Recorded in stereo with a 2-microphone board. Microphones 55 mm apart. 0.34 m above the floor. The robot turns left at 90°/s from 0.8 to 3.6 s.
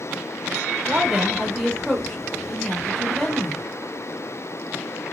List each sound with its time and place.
0.9 s a woman speaking: 15° right (ahead or behind), 0.8 m; by 3.6 s 5° right (ahead or behind), 0.8 m